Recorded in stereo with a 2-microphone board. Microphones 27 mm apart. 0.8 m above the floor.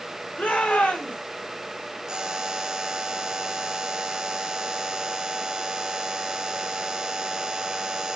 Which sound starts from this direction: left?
A shout, at 0.4 s.